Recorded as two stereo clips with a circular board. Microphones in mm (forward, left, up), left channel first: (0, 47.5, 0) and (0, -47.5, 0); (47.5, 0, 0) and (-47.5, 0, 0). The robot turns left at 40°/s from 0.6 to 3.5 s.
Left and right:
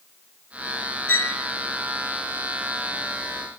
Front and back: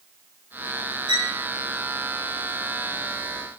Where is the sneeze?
No sneeze in this recording.